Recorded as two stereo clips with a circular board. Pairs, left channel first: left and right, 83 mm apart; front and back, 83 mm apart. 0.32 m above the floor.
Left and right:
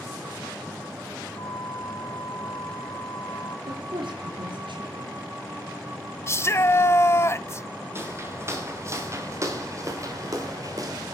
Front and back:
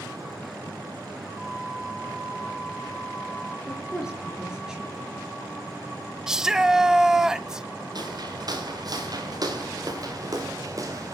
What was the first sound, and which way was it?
A flute, 95° left.